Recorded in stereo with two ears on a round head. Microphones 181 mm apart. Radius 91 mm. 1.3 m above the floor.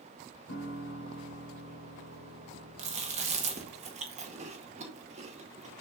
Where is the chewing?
35° right (ahead or behind), 1.8 m.